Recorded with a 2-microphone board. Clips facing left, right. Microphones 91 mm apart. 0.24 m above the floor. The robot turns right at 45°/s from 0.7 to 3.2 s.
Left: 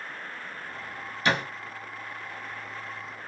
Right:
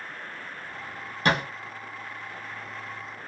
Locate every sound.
1.2 s a thud: 50° right (ahead or behind), 1.5 m; by 1.4 s 60° right (ahead or behind), 1.5 m